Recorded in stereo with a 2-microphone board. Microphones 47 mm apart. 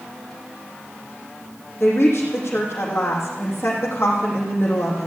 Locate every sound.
1.8 s a woman speaking: 55° left (ahead or behind), 5 m